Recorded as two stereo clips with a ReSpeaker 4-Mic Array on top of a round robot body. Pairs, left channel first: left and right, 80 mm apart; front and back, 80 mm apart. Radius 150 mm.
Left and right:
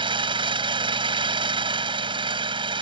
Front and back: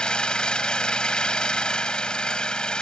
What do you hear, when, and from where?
0.0 s an engine running: 80° right